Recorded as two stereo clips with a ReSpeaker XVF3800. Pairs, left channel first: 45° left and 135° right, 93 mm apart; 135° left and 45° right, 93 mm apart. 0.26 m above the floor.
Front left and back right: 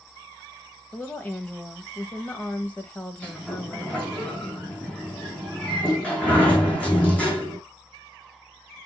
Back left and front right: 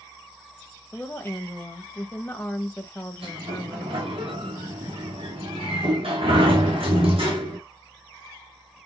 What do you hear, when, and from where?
0.9 s a woman speaking: 90° left, 1.1 m
3.2 s a sliding door: 30° right, 4 m